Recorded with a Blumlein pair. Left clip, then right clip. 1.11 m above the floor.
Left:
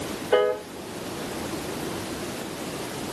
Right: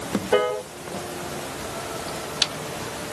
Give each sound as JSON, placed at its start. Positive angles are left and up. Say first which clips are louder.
{"t": 0.3, "sound": "a piano", "louder": "even", "azimuth_deg": -5, "distance_m": 1.6}